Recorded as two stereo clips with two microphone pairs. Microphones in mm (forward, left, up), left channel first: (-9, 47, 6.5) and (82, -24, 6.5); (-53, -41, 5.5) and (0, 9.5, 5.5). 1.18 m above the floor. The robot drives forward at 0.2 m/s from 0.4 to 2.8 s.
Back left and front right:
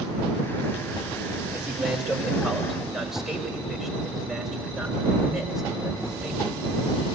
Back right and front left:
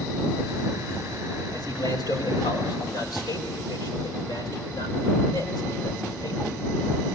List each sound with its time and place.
1.5 s a man speaking: 120° right, 5 m; by 6.5 s 125° right, 5 m